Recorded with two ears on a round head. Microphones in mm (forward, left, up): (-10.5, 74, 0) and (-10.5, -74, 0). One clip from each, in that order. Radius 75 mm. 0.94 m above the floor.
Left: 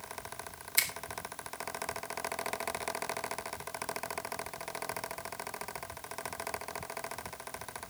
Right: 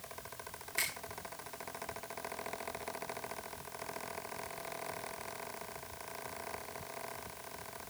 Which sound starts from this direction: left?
A finger snap, at 0.8 s.